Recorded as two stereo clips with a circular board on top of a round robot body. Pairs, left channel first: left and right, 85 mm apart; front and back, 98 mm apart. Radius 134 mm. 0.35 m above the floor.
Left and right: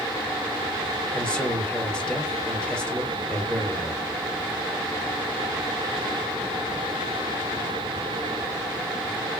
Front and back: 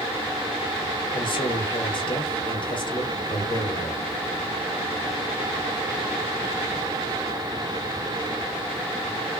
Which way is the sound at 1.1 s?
15° left.